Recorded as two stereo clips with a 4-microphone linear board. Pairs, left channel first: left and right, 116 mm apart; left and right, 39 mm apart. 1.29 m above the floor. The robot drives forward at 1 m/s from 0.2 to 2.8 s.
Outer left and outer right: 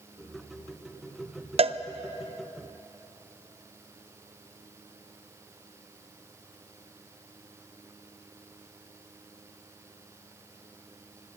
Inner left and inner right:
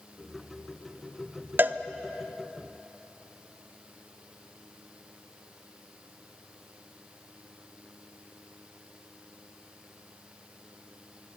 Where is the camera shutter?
No camera shutter in this recording.